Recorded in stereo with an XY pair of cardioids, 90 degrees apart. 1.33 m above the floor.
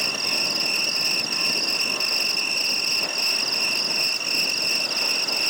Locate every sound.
0.0 s an insect: 5° right